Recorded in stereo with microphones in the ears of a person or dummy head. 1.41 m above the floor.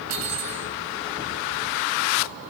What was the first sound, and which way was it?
Cutlery clinking, 75° right (ahead or behind).